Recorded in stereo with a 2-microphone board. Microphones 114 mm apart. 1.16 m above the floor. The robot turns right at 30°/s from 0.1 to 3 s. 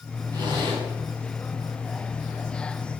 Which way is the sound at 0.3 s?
35° right (ahead or behind).